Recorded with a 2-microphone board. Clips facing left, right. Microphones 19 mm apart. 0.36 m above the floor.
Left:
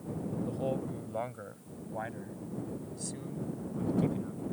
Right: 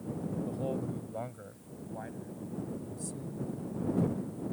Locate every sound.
0.5 s a man speaking: 10° left (ahead or behind); by 4.4 s 40° left (ahead or behind)